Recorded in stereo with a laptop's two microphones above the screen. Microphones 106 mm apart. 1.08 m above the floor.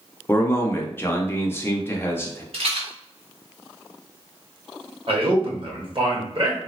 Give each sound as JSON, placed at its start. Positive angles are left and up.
{"t": 0.3, "sound": "a man speaking", "side_deg": 20, "distance_m": 0.5}
{"t": 2.5, "sound": "a rattle", "side_deg": -60, "distance_m": 1.0}
{"t": 5.1, "sound": "a man speaking", "side_deg": -50, "distance_m": 1.3}